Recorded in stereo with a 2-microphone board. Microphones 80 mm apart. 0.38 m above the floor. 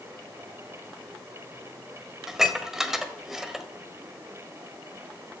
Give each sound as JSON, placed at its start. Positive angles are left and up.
{"t": 2.3, "sound": "dishes clattering", "side_deg": -5, "distance_m": 1.2}